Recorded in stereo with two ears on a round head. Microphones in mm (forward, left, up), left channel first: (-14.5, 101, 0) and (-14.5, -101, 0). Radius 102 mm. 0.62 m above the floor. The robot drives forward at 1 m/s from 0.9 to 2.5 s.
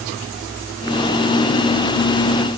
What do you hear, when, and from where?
Only background noise.